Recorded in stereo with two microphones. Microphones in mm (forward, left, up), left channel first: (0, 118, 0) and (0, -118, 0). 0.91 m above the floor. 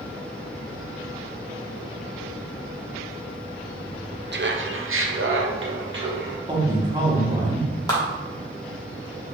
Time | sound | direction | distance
4.3 | laughter | 45° right (ahead or behind) | 0.5 m
6.5 | a man speaking | 20° right (ahead or behind) | 1.2 m
7.9 | a clap | 15° left (ahead or behind) | 1.3 m